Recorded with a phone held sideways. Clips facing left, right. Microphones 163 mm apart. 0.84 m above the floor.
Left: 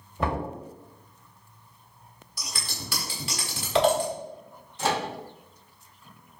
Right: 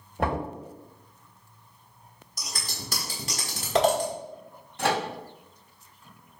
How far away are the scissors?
About 1.0 m.